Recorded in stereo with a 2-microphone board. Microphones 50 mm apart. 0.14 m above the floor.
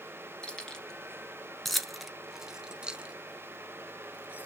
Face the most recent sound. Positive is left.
turn(degrees=-30)  # may be behind; listen again after turning